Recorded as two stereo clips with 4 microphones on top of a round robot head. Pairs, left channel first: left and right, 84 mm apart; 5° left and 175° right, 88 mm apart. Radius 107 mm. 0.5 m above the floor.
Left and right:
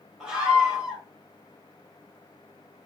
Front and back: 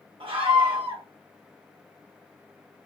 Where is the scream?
170° right, 2.0 m.